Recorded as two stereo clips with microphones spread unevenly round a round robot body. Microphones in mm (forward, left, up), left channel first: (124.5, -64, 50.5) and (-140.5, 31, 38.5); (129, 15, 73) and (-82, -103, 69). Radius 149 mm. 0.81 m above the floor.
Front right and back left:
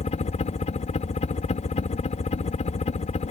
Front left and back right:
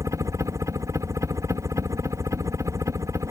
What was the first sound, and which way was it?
A helicopter, 80° right.